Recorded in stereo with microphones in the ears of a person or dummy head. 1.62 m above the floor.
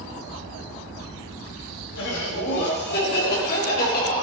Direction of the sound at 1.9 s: 70° left (ahead or behind).